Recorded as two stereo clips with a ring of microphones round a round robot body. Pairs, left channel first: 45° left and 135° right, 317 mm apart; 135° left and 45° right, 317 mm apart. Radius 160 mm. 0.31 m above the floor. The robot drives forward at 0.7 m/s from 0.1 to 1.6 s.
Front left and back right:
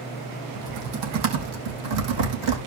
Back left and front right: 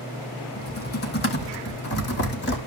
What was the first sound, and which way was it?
Typing on a keyboard, 160° right.